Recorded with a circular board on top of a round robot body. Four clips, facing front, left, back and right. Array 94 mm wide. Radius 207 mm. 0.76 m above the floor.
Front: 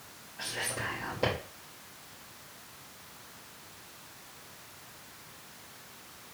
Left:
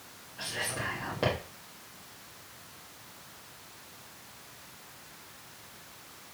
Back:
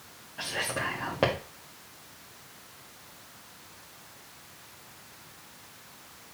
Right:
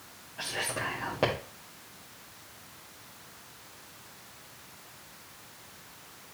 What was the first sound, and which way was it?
Whispering, 160° right.